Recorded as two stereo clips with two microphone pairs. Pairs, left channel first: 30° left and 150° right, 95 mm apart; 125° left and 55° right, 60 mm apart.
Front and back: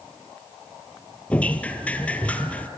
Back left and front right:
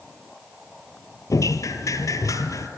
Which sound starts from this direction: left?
Dripping, at 1.3 s.